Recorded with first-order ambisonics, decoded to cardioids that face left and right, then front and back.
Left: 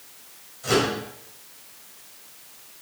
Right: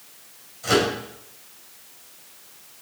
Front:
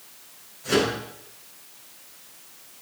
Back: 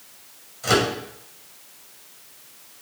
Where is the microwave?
165° right, 2.5 m.